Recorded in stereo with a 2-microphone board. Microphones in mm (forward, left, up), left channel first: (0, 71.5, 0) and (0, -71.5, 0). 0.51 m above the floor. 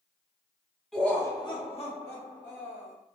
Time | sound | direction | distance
0.9 | laughter | centre (ahead or behind) | 0.7 m